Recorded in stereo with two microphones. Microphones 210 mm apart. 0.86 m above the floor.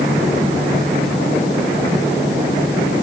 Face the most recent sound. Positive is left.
No sound to turn to.